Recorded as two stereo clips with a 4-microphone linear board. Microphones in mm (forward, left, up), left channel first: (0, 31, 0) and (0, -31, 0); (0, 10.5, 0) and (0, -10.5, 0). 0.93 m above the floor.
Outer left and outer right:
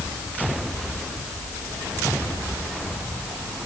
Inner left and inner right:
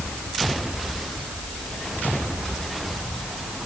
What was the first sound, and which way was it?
Only background noise.